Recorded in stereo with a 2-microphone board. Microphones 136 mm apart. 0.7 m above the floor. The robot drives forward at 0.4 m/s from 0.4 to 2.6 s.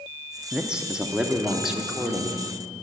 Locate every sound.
0.5 s a man speaking: 5° right (ahead or behind), 0.7 m